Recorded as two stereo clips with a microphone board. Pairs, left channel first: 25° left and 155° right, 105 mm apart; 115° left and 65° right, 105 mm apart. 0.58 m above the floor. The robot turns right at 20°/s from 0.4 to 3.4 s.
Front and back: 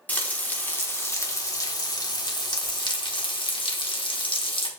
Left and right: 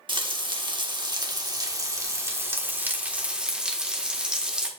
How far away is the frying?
About 1.6 m.